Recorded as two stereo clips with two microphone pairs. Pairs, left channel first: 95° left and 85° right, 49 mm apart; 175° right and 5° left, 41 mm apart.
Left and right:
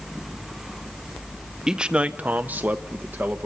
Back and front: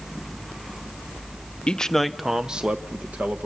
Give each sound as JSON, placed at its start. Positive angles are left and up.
{"t": 1.7, "sound": "a man speaking", "azimuth_deg": -145, "distance_m": 0.6}